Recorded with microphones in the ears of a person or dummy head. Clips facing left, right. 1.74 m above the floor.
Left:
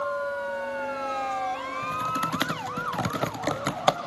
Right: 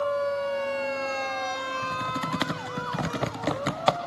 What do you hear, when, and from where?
1.8 s typing on a keyboard: 5° right (ahead or behind), 0.9 m